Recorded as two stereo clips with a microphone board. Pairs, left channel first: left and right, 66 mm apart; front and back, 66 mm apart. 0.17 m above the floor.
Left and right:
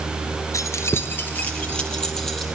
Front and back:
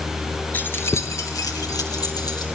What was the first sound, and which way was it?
Keys jangling, 60° left.